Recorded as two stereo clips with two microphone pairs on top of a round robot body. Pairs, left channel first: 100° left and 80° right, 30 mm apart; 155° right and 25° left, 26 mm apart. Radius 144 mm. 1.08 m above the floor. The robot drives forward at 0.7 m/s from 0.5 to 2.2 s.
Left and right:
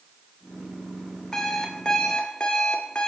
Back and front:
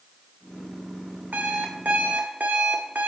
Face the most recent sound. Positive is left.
turn(degrees=40)